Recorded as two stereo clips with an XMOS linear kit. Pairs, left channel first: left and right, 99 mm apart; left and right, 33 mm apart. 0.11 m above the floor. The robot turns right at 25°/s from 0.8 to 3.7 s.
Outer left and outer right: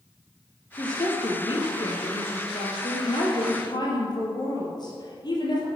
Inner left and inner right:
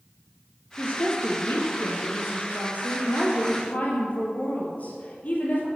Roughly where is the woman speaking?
Ahead left.